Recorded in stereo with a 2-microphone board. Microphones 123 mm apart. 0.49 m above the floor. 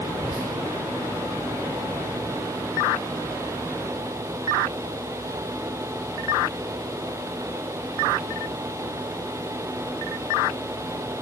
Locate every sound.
0.1 s whispering: 10° right (ahead or behind), 0.9 m